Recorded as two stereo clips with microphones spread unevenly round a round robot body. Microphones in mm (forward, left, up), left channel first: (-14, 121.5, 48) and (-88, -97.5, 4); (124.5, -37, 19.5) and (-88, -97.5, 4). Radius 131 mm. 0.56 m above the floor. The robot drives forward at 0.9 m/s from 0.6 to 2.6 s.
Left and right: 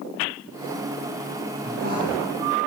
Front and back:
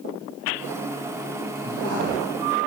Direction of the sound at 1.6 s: 155° right.